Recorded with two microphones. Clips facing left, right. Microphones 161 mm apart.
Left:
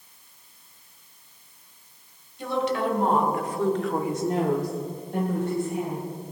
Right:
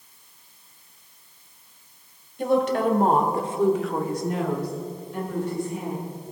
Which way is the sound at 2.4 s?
55° right (ahead or behind).